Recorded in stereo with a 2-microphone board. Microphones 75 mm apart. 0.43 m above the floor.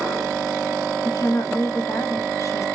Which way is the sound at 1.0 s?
40° left (ahead or behind).